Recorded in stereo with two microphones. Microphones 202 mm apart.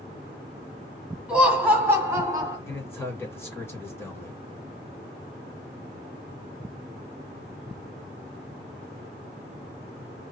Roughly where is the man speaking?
Centre.